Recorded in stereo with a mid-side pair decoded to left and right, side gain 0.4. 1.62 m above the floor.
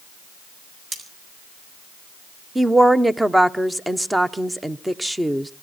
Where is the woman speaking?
10° right, 1.1 m.